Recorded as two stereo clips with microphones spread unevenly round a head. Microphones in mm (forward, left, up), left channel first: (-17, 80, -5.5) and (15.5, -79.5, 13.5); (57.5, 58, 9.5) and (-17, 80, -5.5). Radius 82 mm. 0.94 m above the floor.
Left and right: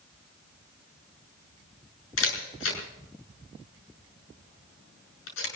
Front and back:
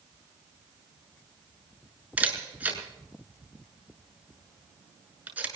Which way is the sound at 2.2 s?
90° left.